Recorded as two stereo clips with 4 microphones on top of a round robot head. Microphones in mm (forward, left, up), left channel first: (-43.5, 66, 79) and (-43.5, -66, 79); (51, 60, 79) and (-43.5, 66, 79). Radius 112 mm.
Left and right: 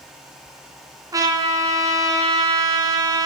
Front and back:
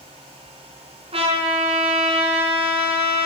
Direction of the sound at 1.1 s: 155° right.